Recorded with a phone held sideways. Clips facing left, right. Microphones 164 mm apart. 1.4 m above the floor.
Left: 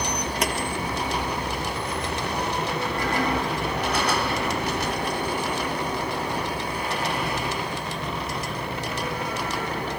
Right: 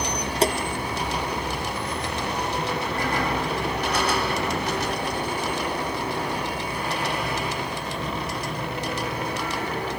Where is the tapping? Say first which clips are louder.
Right 7 dB; 30° right (ahead or behind).